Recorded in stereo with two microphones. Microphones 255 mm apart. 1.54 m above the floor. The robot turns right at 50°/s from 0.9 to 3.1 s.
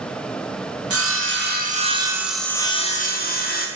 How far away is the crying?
I don't hear crying.